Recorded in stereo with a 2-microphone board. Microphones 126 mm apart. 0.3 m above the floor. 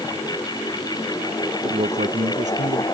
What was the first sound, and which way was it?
A man speaking, 70° right (ahead or behind).